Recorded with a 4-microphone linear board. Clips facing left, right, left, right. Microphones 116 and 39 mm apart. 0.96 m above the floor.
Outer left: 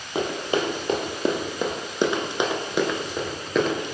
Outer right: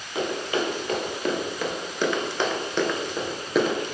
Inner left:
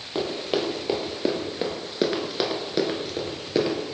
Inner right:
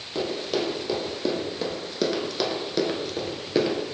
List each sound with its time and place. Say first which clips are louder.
0.1 s running footsteps: outer left 2 dB, inner left 1 dB; 30° left (ahead or behind), 1.7 m; by 3.8 s 5° right (ahead or behind), 1.3 m